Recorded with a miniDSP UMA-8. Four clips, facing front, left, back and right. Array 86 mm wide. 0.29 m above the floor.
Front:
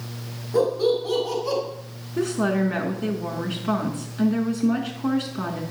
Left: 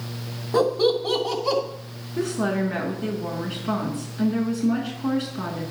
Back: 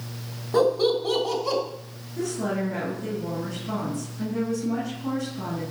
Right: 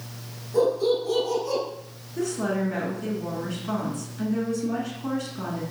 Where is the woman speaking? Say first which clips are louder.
Left 2 dB, front 5 dB; 25° left, 3 m.